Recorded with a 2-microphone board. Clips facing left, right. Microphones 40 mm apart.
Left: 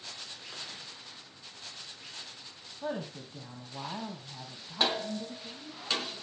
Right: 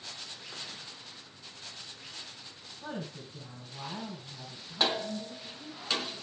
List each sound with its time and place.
2.8 s a woman speaking: 45° left (ahead or behind), 3 m; by 5.8 s 65° left (ahead or behind), 3.5 m